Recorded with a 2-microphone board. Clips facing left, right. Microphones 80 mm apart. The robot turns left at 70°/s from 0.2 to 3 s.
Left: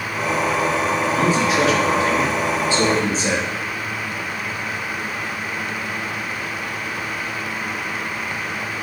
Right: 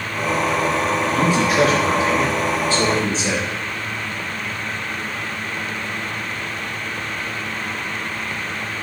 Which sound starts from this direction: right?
A man speaking, at 1.1 s.